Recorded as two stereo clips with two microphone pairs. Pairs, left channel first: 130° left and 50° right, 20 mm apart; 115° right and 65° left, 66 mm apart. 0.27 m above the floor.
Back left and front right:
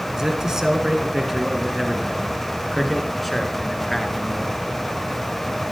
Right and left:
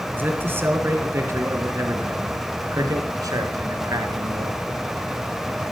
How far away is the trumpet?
I don't hear a trumpet.